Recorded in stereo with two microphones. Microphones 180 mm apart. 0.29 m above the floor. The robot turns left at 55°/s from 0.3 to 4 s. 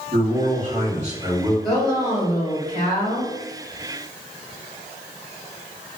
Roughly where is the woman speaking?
Behind.